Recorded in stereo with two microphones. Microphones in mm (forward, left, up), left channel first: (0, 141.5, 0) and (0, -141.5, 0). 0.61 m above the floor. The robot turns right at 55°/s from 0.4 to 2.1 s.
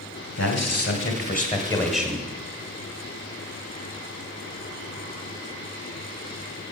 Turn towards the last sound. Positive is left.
turn(degrees=-170)